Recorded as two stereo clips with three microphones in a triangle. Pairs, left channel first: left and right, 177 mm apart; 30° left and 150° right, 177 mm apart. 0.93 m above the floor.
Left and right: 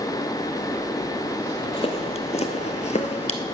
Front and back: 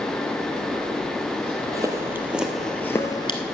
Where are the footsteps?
140° left, 1.7 m; by 3.5 s 65° left, 1.1 m.